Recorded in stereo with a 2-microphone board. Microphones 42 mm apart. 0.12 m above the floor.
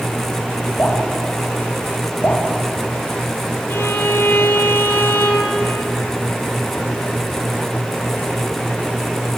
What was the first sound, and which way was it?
Dripping, 45° left (ahead or behind).